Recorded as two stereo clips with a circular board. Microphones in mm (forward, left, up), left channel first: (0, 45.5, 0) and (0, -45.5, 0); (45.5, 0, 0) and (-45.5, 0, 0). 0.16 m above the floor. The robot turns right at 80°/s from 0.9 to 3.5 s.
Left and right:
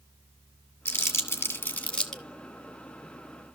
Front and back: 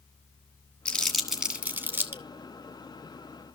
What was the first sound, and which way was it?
Crumpling, 65° left.